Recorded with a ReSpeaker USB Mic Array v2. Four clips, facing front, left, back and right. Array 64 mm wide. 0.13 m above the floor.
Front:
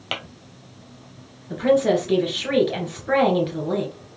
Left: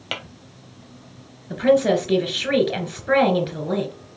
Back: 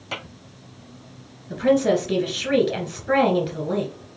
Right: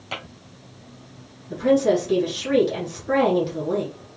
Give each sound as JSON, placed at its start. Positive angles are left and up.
{"t": 0.1, "sound": "tapping", "azimuth_deg": 35, "distance_m": 1.6}
{"t": 1.5, "sound": "a woman speaking", "azimuth_deg": 80, "distance_m": 1.7}